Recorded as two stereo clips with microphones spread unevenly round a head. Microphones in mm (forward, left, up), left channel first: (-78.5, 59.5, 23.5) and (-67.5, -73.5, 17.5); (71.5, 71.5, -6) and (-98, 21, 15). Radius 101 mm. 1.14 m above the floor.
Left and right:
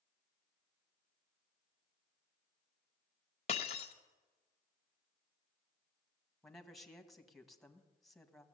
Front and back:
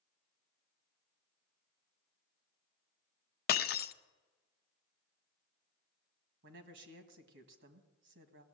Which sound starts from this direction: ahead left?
Breaking glass, at 3.5 s.